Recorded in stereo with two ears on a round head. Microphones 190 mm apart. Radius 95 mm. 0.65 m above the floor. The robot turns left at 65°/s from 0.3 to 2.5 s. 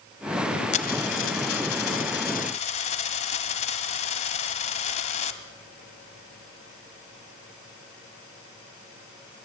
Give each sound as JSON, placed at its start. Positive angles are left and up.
{"t": 0.7, "sound": "a dropped coin", "azimuth_deg": 145, "distance_m": 1.5}